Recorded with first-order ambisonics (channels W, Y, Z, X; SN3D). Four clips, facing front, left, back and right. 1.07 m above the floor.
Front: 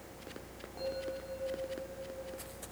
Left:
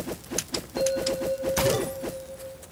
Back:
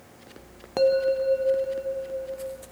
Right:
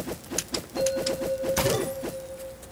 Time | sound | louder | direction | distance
0.8 | a bell | left 1 dB, back 18 dB | 175° left | 0.6 m